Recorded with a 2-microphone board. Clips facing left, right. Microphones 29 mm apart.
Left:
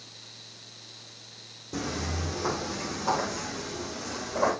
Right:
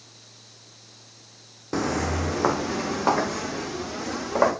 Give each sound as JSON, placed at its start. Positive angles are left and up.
{"t": 1.7, "sound": "footsteps", "side_deg": -60, "distance_m": 0.8}